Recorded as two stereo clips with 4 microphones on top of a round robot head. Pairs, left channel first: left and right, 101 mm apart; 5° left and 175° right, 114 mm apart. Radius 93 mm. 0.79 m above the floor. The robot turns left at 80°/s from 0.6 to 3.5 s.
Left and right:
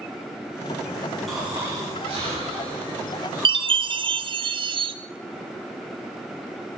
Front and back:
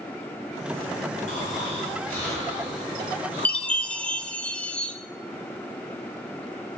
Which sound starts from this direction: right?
A chime, at 3.5 s.